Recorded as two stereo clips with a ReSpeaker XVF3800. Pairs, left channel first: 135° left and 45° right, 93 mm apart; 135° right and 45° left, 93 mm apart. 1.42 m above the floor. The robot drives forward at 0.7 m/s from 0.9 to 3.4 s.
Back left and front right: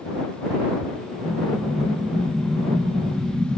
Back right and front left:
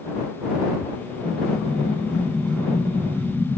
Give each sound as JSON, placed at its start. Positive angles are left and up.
{"t": 1.2, "sound": "an explosion", "azimuth_deg": -150, "distance_m": 1.0}